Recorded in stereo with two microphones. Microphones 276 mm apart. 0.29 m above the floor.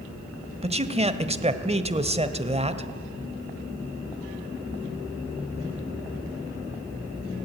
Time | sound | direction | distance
0.6 | a man speaking | 20° right (ahead or behind) | 1.0 m